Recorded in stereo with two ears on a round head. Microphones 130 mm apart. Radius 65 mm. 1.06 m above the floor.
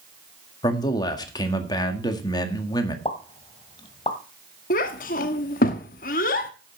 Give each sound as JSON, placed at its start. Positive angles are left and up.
{"t": 0.6, "sound": "a man speaking", "side_deg": 30, "distance_m": 1.7}
{"t": 3.0, "sound": "a pop", "side_deg": 30, "distance_m": 1.5}
{"t": 4.7, "sound": "a child speaking", "side_deg": 65, "distance_m": 1.0}